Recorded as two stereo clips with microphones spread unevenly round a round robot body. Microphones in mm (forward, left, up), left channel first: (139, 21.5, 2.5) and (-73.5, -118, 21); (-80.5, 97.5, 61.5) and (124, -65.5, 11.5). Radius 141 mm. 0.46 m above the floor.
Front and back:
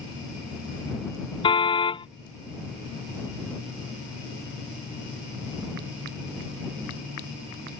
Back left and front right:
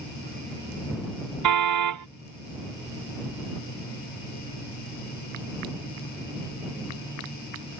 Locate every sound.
1.4 s a car horn: 40° right